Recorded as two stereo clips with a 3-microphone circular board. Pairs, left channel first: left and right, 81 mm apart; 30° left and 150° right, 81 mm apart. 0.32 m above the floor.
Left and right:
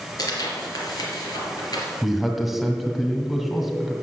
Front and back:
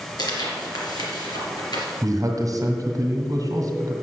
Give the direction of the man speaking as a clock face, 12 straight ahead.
6 o'clock.